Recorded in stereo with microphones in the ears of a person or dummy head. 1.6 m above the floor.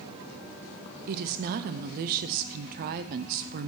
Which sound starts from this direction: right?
A woman speaking, at 1.1 s.